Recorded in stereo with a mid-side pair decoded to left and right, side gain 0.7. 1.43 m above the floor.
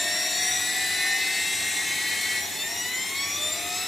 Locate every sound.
0.0 s a machine running: 10° left, 1.6 m